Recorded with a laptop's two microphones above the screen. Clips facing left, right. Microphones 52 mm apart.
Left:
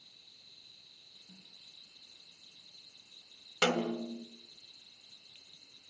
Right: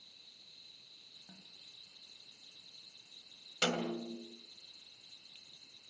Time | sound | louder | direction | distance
1.3 | a snare drum | even | 85° right | 4.5 m
3.6 | a snare drum | left 4 dB | 30° left (ahead or behind) | 1.7 m